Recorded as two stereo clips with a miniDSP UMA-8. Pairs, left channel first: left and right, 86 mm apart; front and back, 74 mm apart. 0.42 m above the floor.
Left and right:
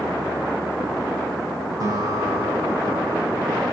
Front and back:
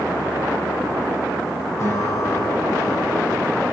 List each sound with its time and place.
1.8 s a guitar: 45° right, 9.5 m